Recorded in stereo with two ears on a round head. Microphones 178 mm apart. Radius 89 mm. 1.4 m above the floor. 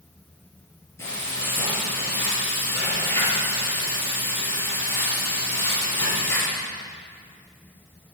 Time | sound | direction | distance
1.0 | frying | 15° left (ahead or behind) | 8 m